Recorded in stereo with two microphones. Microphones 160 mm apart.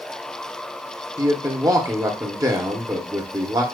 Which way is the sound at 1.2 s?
25° right (ahead or behind).